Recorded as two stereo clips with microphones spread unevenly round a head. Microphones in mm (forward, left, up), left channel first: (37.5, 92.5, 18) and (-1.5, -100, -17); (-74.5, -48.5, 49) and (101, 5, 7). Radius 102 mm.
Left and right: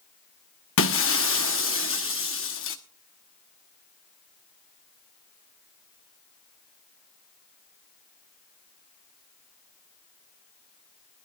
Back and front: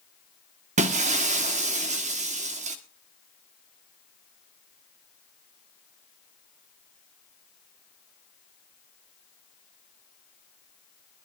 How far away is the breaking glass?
About 1.3 m.